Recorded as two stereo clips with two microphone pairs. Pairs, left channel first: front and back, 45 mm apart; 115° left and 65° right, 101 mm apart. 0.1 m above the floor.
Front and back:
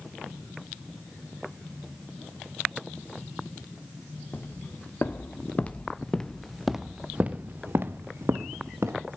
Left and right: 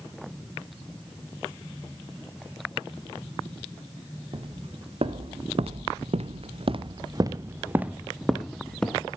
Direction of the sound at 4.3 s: 40° right.